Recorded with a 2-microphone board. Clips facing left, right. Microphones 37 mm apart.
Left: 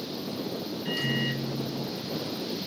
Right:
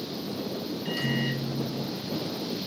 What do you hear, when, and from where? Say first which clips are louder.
0.8 s a microwave: even; 10° right (ahead or behind), 1.0 m